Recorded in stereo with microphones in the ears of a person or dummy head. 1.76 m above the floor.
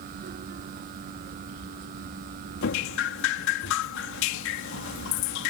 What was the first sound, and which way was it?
Dripping, 65° left (ahead or behind).